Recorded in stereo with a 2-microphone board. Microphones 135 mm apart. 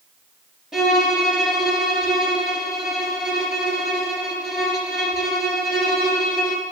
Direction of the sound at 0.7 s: 5° right (ahead or behind).